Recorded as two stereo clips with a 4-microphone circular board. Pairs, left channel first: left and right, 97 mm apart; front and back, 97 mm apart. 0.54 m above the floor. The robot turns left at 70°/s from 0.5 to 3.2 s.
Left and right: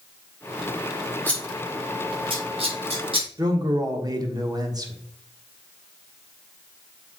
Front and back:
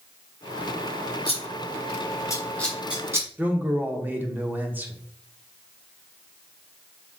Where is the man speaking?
115° right, 1.1 m.